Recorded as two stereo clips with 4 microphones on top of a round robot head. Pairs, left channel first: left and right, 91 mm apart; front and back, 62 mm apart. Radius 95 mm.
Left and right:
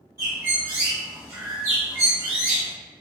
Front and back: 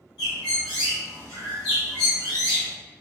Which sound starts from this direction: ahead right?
A bird, at 0.2 s.